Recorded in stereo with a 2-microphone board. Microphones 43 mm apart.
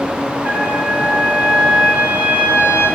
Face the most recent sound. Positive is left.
turn(degrees=-75)  # may be behind; listen again after turning